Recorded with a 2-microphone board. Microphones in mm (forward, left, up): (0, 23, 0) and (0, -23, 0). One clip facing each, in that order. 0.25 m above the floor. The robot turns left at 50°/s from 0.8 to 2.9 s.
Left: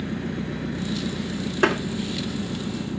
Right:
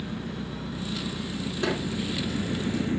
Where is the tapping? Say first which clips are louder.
Left 8 dB; 55° left (ahead or behind), 1.6 m; by 1.8 s 50° left (ahead or behind), 1.6 m.